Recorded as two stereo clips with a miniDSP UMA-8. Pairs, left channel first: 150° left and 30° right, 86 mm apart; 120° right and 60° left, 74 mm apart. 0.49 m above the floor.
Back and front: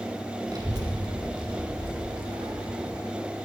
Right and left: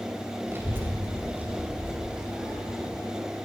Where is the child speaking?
5° left, 1.8 m; by 3.0 s 25° right, 2.5 m.